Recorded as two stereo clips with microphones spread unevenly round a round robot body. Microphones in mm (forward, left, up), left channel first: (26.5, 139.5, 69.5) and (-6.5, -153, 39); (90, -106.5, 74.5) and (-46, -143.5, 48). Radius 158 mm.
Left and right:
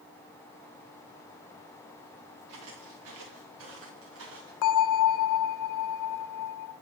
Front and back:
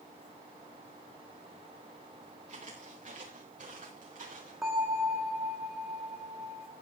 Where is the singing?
No singing in this recording.